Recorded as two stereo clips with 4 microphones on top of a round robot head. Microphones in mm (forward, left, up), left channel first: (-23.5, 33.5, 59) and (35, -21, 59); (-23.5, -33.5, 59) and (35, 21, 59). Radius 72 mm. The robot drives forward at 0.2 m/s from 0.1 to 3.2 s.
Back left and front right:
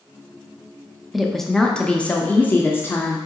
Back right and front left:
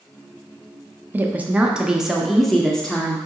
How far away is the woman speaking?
About 0.5 m.